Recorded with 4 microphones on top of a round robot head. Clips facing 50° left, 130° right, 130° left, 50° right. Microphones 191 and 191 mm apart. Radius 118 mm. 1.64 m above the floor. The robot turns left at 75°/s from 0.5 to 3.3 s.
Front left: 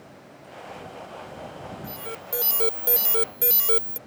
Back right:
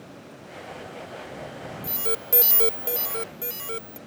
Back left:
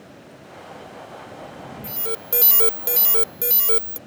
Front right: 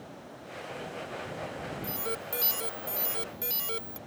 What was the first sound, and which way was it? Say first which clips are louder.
An alarm: back right 5 dB, back left 8 dB; 155° right.